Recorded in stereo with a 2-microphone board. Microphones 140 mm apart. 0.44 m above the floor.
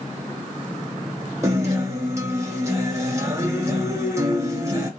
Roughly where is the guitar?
Right.